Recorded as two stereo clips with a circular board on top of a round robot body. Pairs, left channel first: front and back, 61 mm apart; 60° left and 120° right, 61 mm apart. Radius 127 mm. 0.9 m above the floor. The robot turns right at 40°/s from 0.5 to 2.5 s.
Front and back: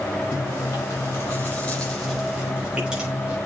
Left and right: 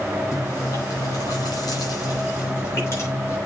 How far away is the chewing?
About 5.5 m.